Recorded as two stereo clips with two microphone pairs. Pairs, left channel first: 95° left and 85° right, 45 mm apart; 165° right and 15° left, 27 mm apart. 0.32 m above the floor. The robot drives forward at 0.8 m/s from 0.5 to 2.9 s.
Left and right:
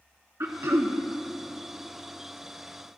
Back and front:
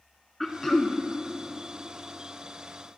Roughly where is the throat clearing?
Right.